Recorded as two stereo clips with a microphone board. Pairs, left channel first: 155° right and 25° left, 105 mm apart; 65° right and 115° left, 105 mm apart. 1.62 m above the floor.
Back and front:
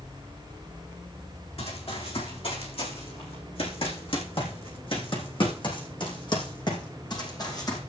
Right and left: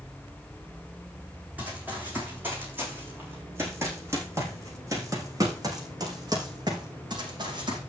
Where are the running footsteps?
170° right, 7 m; by 7.8 s 155° left, 5.5 m.